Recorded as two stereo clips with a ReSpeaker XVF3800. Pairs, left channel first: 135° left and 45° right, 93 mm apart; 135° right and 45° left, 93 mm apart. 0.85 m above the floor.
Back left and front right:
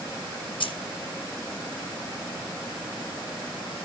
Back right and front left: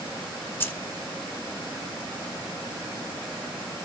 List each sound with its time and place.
0.6 s keys jangling: 160° left, 0.9 m